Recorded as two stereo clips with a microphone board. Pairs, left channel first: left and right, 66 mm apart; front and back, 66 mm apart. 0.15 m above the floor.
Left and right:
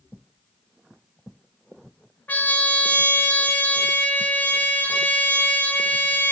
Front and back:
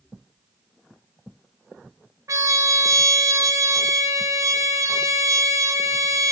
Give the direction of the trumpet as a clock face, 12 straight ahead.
7 o'clock.